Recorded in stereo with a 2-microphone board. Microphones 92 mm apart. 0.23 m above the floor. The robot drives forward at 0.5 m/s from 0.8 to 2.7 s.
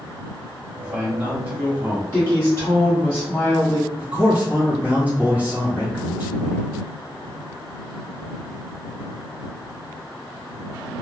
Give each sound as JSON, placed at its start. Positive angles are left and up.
{"t": 0.8, "sound": "a man speaking", "side_deg": -20, "distance_m": 1.2}
{"t": 2.1, "sound": "a woman speaking", "side_deg": 30, "distance_m": 1.1}
{"t": 4.0, "sound": "a man speaking", "side_deg": -20, "distance_m": 1.3}